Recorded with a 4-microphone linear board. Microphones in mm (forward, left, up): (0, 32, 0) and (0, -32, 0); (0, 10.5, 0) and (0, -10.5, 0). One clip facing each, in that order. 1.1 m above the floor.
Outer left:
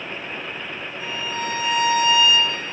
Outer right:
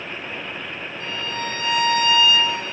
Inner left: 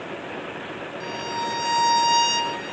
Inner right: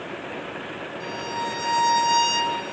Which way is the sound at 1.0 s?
10° left (ahead or behind).